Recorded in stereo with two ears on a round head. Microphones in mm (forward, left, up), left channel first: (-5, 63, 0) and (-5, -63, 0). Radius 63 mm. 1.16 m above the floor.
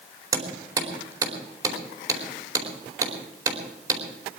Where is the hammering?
25° right (ahead or behind), 4 m.